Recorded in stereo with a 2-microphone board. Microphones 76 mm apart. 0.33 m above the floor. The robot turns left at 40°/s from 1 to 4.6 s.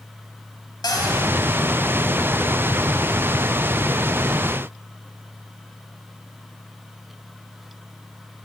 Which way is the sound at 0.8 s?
60° left (ahead or behind).